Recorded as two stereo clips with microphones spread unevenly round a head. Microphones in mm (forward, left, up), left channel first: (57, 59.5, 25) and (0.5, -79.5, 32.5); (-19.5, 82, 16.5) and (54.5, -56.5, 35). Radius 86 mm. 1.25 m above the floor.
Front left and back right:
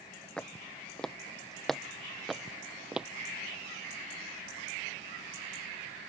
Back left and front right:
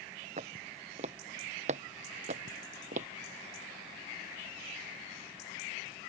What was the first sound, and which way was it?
Footsteps, 15° right.